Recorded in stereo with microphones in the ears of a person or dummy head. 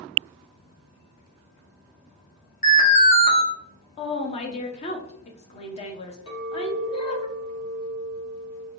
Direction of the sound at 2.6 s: 40° left (ahead or behind).